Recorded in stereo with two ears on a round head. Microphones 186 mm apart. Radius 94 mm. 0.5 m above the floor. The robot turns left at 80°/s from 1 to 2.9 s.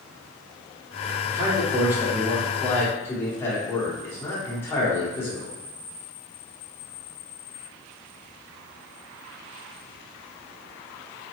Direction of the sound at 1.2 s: 20° right (ahead or behind).